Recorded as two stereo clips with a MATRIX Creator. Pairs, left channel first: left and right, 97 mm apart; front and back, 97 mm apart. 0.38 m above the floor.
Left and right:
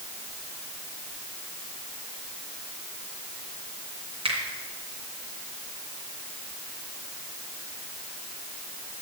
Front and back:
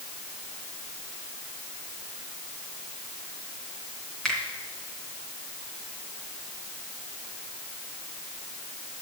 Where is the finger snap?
80° right, 2.5 m.